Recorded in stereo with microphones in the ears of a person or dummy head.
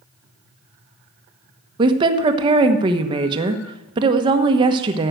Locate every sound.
1.8 s a woman speaking: 25° right (ahead or behind), 1.2 m